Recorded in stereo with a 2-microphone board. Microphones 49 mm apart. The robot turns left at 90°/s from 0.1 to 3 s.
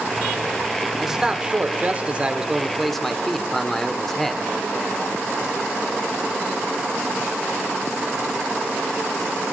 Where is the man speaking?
5° right (ahead or behind), 0.9 m; by 4.4 s 5° left (ahead or behind), 0.9 m.